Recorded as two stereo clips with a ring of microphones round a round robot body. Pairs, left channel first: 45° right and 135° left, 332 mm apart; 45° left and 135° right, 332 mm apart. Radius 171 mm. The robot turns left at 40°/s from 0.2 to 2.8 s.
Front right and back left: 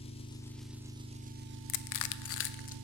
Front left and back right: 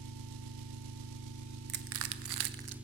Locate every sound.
0.0 s an engine running: 115° right, 0.9 m; by 2.9 s 140° left, 0.9 m
1.7 s crushing: 70° right, 0.6 m; by 2.8 s 115° right, 0.6 m